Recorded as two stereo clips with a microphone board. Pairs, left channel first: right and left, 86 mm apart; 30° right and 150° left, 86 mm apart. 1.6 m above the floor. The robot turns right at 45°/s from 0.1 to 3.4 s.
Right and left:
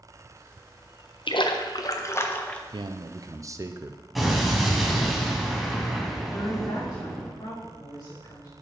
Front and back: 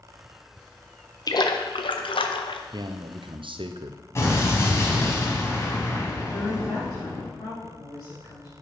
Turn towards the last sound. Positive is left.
turn(degrees=-65)